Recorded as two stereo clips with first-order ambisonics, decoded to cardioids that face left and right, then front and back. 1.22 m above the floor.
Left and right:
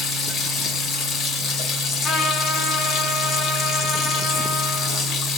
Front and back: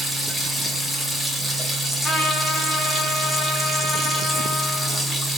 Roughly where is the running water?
Left.